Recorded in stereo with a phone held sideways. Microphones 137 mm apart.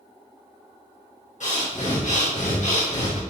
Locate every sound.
1.4 s breathing: 60° left (ahead or behind), 1.5 m